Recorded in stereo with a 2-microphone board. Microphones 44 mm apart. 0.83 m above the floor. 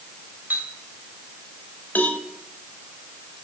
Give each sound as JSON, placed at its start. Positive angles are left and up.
{"t": 0.5, "sound": "a clink", "side_deg": -45, "distance_m": 3.0}
{"t": 1.9, "sound": "a cowbell", "side_deg": 45, "distance_m": 1.2}